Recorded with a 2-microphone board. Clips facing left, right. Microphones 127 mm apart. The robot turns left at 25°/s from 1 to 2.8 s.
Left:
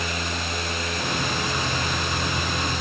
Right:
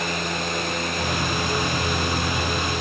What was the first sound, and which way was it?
Only background noise.